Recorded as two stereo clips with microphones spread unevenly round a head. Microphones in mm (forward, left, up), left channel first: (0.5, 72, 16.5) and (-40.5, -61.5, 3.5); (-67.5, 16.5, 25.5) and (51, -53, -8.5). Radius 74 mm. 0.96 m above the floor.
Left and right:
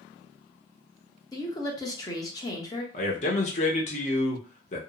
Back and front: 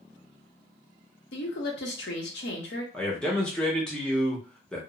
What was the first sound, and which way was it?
A woman speaking, 140° left.